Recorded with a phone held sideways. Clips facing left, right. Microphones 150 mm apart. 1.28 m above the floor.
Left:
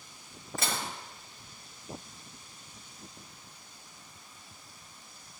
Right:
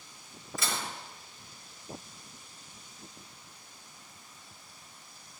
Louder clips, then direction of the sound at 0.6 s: Left 1 dB; 55° left (ahead or behind).